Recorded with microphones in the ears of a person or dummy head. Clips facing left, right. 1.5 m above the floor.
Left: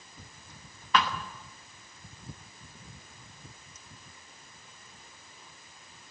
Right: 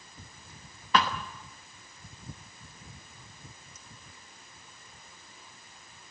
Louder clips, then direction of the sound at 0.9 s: Right 1 dB; 30° right (ahead or behind).